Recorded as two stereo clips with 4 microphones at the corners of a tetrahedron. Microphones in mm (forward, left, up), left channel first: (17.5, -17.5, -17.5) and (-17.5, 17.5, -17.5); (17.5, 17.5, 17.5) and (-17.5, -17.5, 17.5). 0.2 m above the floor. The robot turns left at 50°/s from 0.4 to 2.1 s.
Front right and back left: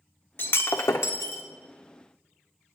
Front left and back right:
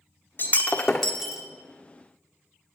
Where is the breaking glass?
5° right, 1.0 m; by 1.4 s 60° right, 1.0 m.